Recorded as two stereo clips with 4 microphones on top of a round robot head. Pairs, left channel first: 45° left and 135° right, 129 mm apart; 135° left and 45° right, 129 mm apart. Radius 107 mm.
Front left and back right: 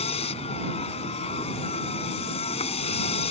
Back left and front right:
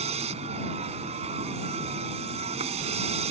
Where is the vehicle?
Straight ahead.